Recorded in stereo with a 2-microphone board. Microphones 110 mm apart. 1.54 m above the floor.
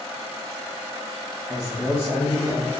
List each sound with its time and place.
1.5 s a man speaking: centre (ahead or behind), 0.6 m; by 2.7 s 10° right (ahead or behind), 1.6 m